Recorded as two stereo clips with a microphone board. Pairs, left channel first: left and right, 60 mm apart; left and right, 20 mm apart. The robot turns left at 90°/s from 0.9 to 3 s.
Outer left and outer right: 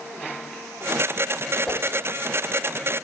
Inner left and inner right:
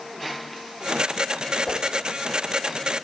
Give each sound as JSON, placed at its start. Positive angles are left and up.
{"t": 1.7, "sound": "a whoosh", "side_deg": 5, "distance_m": 2.5}